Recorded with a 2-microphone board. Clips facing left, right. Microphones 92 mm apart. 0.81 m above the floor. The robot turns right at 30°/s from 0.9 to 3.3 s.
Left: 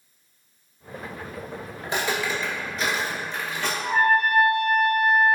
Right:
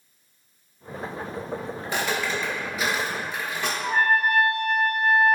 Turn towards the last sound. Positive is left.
turn(degrees=-65)  # may be behind; listen again after turning